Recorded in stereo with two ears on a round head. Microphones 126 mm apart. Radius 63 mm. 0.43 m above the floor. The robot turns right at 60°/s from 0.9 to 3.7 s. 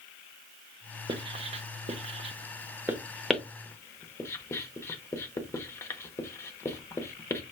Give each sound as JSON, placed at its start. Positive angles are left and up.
{"t": 1.1, "sound": "writing", "side_deg": -30, "distance_m": 0.7}